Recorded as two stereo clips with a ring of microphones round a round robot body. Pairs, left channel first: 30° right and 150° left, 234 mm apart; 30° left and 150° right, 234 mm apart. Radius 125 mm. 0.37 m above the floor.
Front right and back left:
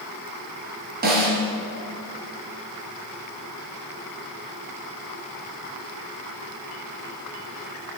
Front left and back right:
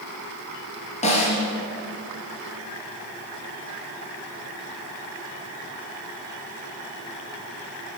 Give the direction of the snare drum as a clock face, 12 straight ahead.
9 o'clock.